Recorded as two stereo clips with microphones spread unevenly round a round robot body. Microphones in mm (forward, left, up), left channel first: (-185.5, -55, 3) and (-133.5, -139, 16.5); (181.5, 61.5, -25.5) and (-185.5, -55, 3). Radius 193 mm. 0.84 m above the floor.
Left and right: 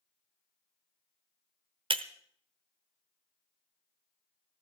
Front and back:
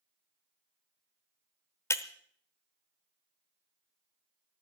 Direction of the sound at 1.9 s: 70° right.